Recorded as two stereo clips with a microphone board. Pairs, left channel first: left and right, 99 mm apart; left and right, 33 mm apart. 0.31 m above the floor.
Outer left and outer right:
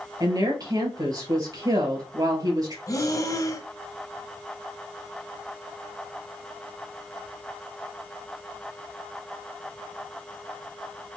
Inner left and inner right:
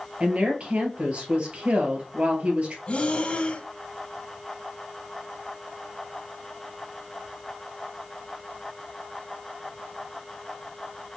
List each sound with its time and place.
0.2 s a woman speaking: 40° right (ahead or behind), 2 m
2.9 s breathing: 35° left (ahead or behind), 0.6 m